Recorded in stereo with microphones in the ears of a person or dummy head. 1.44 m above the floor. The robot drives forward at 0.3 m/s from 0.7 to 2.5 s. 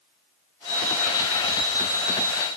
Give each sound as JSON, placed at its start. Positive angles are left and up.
{"t": 0.7, "sound": "an alarm clock", "side_deg": 65, "distance_m": 2.0}